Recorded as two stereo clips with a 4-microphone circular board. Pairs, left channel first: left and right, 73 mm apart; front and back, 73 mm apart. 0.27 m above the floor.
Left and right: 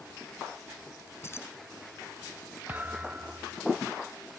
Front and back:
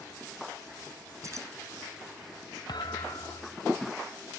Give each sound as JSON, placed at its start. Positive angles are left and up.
{"t": 1.2, "sound": "keys jangling", "azimuth_deg": 140}
{"t": 2.7, "sound": "a thud", "azimuth_deg": -25}